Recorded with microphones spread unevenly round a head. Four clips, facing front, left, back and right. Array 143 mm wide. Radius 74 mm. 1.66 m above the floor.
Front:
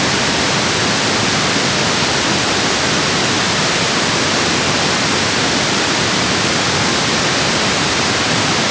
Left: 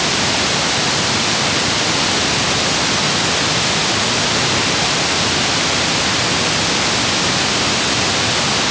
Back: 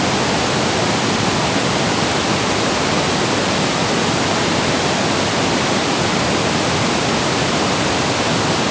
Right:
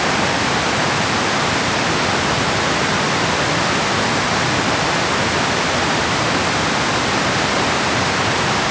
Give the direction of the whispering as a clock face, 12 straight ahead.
I don't hear whispering.